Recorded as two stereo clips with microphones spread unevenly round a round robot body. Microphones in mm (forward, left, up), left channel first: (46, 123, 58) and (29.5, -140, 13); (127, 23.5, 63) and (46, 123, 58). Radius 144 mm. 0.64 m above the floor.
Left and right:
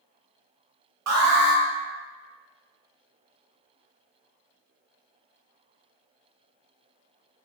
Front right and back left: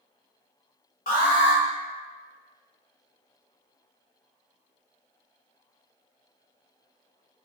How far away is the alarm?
About 0.7 m.